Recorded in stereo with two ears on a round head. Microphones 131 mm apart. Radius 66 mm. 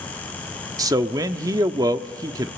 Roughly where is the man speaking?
Right.